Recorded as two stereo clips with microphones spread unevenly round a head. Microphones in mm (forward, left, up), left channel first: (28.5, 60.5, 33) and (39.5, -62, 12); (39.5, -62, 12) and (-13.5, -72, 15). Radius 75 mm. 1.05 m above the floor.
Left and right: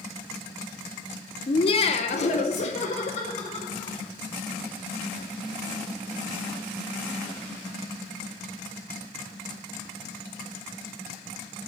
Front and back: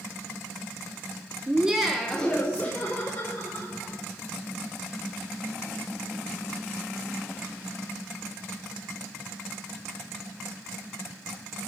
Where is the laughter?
130° left, 0.6 m; by 4.0 s 60° left, 1.5 m.